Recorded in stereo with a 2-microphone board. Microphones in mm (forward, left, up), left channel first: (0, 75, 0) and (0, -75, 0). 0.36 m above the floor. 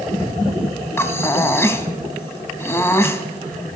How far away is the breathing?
About 0.8 m.